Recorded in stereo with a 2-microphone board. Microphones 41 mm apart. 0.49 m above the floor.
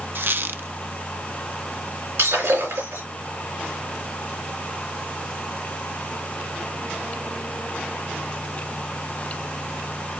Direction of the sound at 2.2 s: 80° right.